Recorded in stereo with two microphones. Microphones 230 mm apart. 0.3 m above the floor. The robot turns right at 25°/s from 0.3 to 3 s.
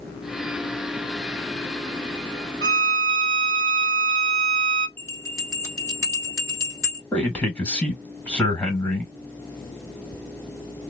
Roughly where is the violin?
Right.